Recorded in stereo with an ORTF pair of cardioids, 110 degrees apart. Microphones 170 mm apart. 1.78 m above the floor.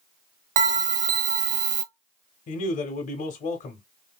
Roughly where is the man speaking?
Ahead left.